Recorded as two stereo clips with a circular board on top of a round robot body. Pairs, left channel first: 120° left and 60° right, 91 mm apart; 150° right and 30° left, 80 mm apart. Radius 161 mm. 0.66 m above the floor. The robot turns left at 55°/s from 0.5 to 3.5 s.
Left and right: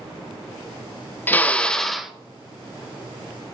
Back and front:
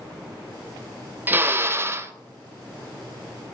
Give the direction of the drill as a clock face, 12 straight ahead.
10 o'clock.